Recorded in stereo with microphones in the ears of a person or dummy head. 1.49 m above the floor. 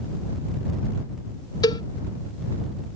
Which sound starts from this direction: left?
A cowbell, at 1.6 s.